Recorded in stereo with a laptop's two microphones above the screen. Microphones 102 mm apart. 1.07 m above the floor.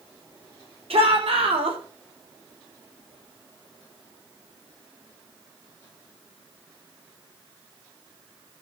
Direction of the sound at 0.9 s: 85° right.